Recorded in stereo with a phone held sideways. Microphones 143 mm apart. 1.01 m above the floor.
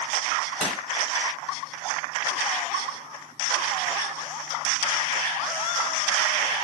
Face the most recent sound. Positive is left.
turn(degrees=5)  # may be behind; listen again after turning